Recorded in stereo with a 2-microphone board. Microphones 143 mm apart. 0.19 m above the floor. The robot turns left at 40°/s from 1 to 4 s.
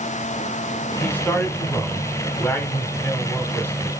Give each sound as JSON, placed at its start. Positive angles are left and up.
{"t": 1.0, "sound": "a man speaking", "side_deg": 10, "distance_m": 1.1}